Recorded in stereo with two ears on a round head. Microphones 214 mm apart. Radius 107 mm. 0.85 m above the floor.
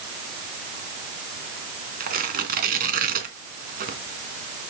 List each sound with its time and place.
2.0 s tearing paper: 35° right (ahead or behind), 3 m